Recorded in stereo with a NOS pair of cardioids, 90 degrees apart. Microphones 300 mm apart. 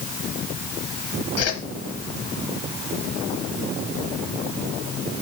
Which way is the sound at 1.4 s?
55° left.